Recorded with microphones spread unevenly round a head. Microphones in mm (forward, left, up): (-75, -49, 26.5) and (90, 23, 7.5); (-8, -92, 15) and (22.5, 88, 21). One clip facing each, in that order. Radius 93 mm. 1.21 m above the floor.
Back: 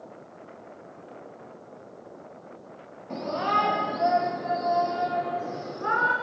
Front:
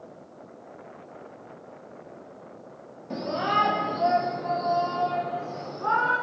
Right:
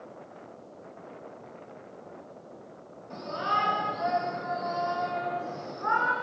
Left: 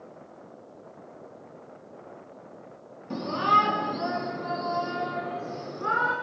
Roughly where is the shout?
Left.